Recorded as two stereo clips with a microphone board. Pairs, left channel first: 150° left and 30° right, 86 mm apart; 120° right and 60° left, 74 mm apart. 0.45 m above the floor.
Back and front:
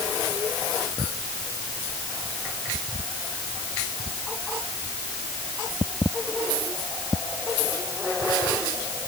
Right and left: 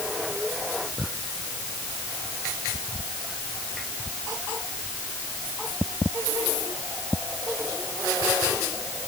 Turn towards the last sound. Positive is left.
No sound to turn to.